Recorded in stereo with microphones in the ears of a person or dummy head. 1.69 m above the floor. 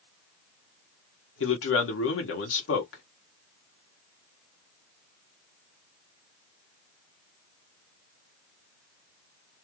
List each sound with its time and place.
1.4 s a man speaking: 65° left (ahead or behind), 1.1 m